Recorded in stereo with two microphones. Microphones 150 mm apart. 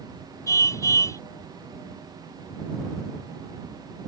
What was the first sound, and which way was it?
A car horn, 20° left (ahead or behind).